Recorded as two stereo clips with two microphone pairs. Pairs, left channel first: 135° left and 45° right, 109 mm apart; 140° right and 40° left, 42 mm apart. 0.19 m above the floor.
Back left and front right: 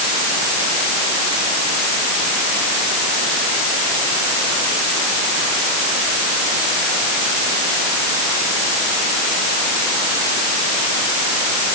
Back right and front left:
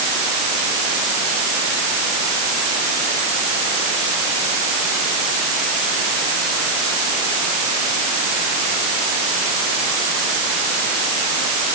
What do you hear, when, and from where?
Only background noise.